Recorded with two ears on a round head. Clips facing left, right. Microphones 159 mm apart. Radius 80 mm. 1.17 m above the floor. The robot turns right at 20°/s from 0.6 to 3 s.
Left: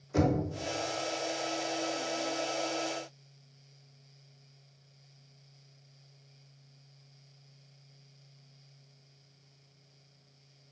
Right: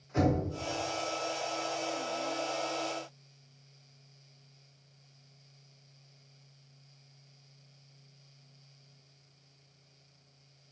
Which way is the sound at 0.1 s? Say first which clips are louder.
Left 1 dB; 65° left (ahead or behind).